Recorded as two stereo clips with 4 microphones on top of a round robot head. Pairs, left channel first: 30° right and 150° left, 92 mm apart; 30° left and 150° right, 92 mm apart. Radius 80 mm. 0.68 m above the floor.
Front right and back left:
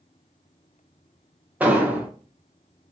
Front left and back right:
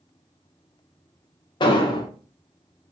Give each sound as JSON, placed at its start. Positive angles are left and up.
{"t": 1.6, "sound": "an explosion", "azimuth_deg": 75, "distance_m": 0.7}